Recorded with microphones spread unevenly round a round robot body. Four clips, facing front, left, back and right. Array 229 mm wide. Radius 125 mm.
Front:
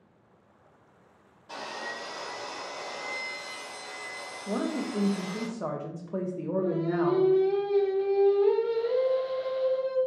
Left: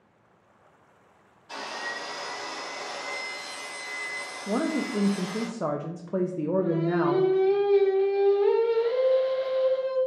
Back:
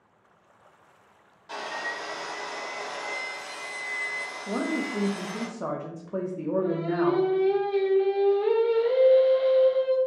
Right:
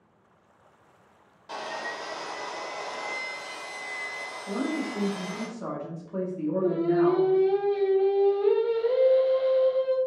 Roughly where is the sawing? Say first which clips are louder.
Right 1 dB, back 4 dB; ahead right.